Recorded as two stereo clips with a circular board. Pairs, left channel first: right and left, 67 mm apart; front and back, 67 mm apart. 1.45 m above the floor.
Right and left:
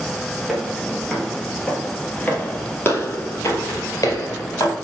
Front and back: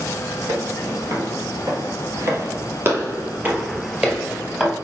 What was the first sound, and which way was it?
Footsteps, 170° left.